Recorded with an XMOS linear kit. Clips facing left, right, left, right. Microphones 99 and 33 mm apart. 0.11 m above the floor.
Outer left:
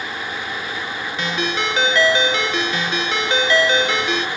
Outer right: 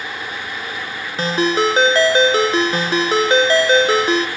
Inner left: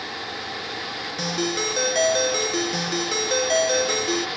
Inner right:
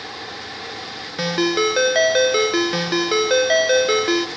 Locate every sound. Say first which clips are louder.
1.2 s a ringtone: outer right 7 dB, inner right 7 dB; 35° right (ahead or behind), 0.6 m